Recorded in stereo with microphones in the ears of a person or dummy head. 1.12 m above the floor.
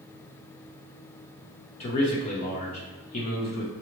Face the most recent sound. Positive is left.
turn(degrees=40)  # may be behind; listen again after turning